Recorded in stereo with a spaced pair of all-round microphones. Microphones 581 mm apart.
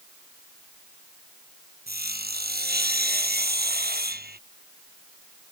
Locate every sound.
1.9 s sawing: 15° right (ahead or behind)